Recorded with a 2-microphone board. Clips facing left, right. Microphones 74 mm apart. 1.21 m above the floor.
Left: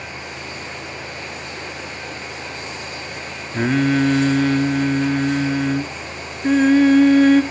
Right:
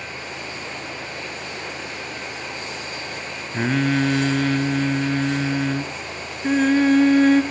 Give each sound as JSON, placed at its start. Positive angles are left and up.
{"t": 3.5, "sound": "singing", "side_deg": 0, "distance_m": 1.1}